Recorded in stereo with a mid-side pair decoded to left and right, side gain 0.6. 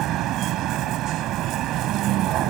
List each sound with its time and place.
0.0 s a vehicle: 65° right